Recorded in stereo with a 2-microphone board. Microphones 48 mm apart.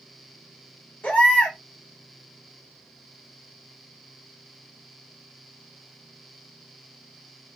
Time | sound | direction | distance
1.0 | a baby crying | 40° left (ahead or behind) | 1.5 m